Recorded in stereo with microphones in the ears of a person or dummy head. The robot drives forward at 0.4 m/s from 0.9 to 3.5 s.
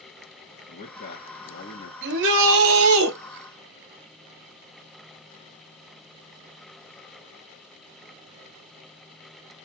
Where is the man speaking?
40° left (ahead or behind), 2.5 m; by 1.9 s 50° left (ahead or behind), 2 m.